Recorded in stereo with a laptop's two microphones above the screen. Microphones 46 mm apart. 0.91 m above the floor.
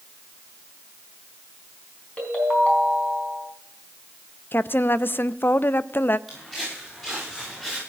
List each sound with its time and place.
2.2 s a ringtone: 30° left (ahead or behind), 3.5 m
4.5 s a woman speaking: 50° left (ahead or behind), 0.6 m
6.3 s footsteps: 10° left (ahead or behind), 7.5 m